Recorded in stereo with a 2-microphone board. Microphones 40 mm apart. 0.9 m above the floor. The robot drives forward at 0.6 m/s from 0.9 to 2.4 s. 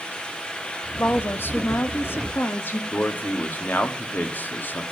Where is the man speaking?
55° left (ahead or behind), 1.3 m.